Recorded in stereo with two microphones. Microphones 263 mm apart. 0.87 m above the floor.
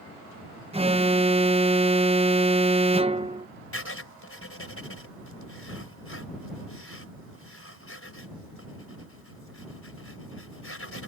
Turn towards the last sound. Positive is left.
turn(degrees=55)  # may be behind; listen again after turning